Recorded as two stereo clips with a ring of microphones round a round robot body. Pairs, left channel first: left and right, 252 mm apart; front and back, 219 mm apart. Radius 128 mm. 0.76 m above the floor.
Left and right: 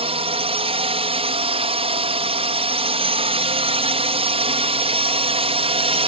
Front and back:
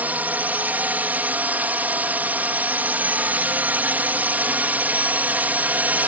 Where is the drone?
110° right.